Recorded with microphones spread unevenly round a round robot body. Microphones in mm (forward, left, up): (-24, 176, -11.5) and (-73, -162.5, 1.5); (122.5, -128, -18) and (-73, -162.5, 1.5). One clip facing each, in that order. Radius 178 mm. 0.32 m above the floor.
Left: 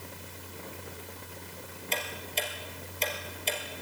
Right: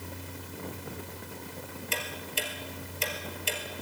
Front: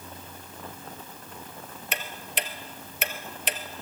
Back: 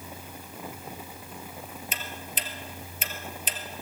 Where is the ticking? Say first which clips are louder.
Left 2 dB, front 7 dB; 20° right, 1.9 m.